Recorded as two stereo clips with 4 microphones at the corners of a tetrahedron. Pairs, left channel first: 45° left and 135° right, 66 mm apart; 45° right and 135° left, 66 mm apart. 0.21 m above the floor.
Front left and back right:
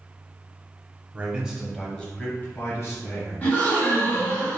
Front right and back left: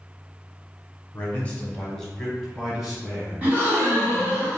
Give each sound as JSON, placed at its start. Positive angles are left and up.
{"t": 1.1, "sound": "a man speaking", "azimuth_deg": -85, "distance_m": 1.2}
{"t": 3.4, "sound": "a gasp", "azimuth_deg": 90, "distance_m": 1.6}